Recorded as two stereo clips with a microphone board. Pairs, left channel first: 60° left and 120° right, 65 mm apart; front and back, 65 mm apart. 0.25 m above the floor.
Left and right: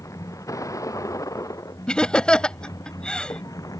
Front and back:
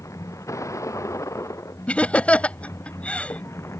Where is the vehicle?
30° left; by 3.8 s 40° left.